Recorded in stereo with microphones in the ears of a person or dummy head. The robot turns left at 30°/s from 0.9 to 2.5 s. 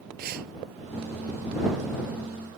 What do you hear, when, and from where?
0.2 s breathing: 60° right (ahead or behind)